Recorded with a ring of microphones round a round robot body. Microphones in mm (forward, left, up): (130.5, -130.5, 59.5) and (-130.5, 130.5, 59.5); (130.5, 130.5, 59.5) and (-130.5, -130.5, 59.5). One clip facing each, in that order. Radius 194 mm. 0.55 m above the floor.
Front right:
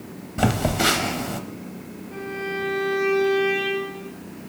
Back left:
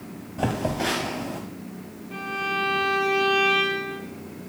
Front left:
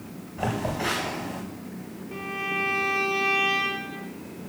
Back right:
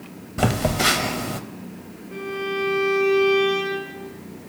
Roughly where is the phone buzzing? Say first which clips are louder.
Front right 3 dB, back right 6 dB; right.